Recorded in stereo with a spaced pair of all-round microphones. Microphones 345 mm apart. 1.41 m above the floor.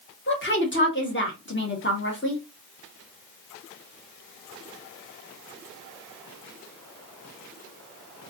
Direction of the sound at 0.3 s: 35° left (ahead or behind).